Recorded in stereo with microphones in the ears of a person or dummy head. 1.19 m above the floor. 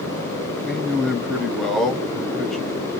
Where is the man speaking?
Centre (ahead or behind), 0.8 m.